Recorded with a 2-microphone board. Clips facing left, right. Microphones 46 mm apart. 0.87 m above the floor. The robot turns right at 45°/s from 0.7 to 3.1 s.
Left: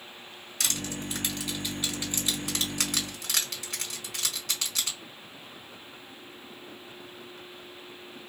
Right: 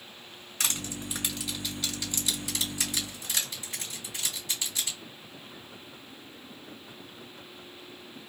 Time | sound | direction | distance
0.6 | crushing | 35° right (ahead or behind) | 1.6 m